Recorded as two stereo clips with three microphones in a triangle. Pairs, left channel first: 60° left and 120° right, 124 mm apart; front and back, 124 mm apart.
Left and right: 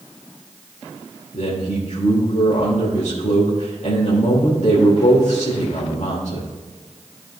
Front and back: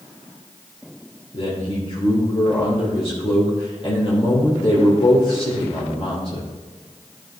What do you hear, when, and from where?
1.3 s a man speaking: 40° left, 2.5 m